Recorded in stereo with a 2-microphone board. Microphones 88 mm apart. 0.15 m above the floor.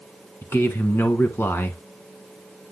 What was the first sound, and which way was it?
A man speaking, 30° left (ahead or behind).